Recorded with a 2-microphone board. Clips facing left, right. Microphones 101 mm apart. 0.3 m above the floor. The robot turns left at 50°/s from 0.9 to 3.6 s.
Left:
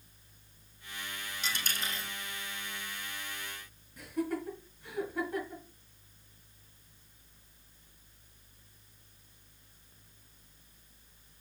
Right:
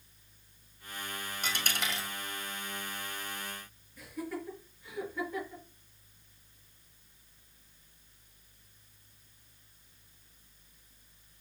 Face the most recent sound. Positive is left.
turn(degrees=70)  # may be behind; listen again after turning